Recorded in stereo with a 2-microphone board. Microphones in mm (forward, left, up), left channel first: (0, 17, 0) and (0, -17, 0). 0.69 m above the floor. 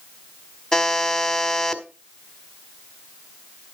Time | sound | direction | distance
0.7 | a buzzer | 20° left (ahead or behind) | 1.4 m